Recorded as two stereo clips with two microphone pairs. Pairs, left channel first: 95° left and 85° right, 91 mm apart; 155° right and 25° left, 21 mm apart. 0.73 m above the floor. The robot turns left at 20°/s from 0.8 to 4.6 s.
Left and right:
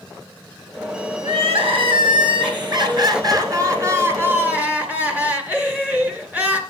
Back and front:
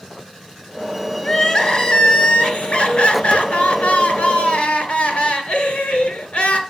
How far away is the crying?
About 2 m.